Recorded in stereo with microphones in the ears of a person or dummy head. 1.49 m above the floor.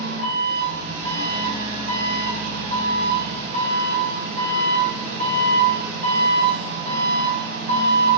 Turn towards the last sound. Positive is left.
turn(degrees=-75)  # may be behind; listen again after turning